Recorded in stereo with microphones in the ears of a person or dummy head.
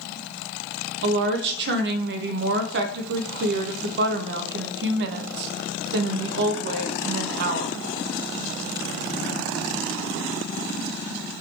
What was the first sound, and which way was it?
A woman speaking, 55° right (ahead or behind).